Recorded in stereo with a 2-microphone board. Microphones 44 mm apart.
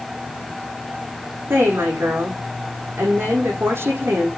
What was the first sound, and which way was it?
A woman speaking, 70° right (ahead or behind).